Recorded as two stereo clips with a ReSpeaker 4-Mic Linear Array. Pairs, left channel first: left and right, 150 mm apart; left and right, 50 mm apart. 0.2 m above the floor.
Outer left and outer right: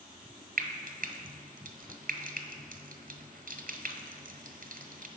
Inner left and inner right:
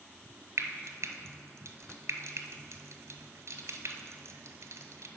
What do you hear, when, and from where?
0.6 s frying: 75° right (ahead or behind), 1.0 m